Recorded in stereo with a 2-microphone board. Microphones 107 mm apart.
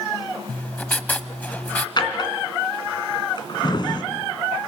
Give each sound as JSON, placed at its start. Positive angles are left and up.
{"t": 0.5, "sound": "writing", "side_deg": 15, "distance_m": 0.7}
{"t": 2.0, "sound": "a drawer", "side_deg": 45, "distance_m": 2.5}